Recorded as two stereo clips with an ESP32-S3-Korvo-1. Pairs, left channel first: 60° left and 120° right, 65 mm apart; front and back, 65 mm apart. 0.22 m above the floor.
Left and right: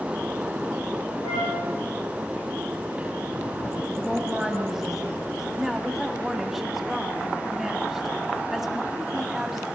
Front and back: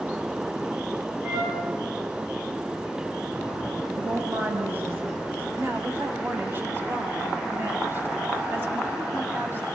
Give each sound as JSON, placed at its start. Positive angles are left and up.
{"t": 1.2, "sound": "a flute", "azimuth_deg": 100, "distance_m": 5.5}
{"t": 3.9, "sound": "a woman speaking", "azimuth_deg": 160, "distance_m": 1.1}
{"t": 5.6, "sound": "a woman speaking", "azimuth_deg": 165, "distance_m": 1.5}